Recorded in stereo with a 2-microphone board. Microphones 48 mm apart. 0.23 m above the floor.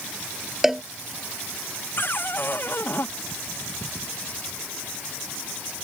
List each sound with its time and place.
0.6 s a cowbell: 10° right (ahead or behind)
2.0 s a cupboard door: 50° left (ahead or behind)